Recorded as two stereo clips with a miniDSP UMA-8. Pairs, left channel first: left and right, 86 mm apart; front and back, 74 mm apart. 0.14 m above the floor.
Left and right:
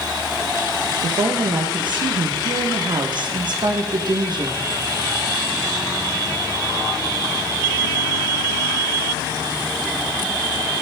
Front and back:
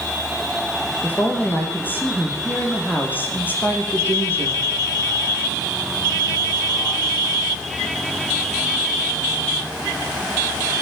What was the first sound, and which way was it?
A woman speaking, 65° right.